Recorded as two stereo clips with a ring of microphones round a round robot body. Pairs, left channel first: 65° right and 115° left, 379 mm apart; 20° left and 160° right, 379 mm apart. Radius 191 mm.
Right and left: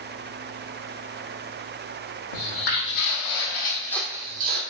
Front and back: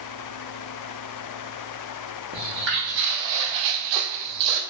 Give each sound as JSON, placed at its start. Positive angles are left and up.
{"t": 2.3, "sound": "footsteps", "azimuth_deg": -90, "distance_m": 1.2}